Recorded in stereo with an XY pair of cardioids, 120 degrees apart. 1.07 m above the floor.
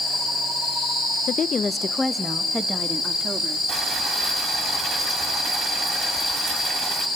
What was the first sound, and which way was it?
A woman speaking, 45° left.